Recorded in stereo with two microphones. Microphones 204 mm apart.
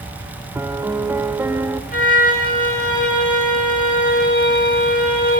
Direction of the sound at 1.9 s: 40° left (ahead or behind).